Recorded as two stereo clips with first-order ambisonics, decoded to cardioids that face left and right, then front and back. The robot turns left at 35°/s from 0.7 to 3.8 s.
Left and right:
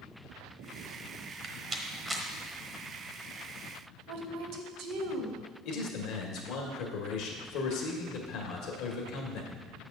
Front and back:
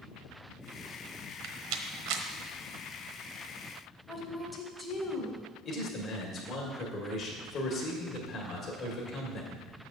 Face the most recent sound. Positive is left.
turn(degrees=60)